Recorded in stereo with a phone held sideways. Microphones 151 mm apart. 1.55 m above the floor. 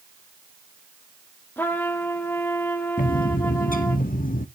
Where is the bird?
60° left (ahead or behind), 0.6 m.